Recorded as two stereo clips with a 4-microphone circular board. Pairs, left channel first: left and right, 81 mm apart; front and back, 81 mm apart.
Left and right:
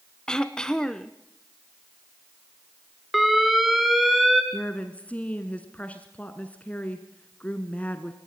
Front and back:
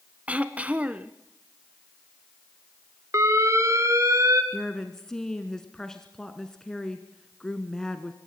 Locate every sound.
0.3 s throat clearing: 150° left, 0.7 m
3.1 s an alarm: 175° right, 1.8 m
4.5 s a woman speaking: 70° left, 1.1 m